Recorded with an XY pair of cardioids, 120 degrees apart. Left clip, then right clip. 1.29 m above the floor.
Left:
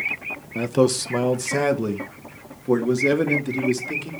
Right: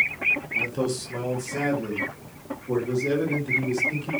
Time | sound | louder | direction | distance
0.6 | a man speaking | left 6 dB | 60° left | 0.9 m